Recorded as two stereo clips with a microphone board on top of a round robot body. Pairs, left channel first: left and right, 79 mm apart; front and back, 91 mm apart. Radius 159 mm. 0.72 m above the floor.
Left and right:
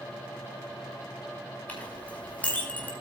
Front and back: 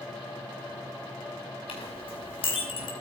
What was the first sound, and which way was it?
A clink, 20° left.